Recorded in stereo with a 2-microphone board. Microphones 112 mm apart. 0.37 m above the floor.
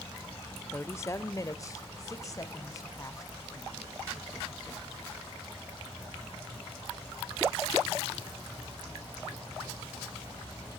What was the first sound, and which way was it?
A woman speaking, 20° left (ahead or behind).